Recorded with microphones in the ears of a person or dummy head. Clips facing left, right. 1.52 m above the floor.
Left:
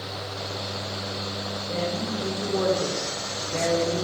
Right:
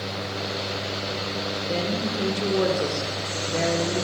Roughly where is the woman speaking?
Right.